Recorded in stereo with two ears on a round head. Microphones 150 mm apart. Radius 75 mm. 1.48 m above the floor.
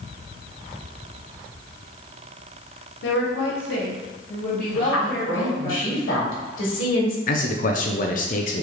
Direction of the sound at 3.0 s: 75° left (ahead or behind).